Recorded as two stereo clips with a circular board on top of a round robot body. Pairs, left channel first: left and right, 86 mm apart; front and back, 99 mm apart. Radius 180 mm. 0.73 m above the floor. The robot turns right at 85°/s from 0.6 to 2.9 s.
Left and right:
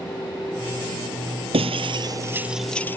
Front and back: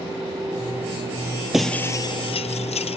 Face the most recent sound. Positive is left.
turn(degrees=20)